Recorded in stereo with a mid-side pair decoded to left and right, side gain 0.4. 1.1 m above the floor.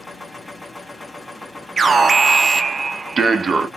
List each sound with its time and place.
0.0 s a machine running: 10° left, 1.4 m
1.8 s an alarm: 40° right, 0.8 m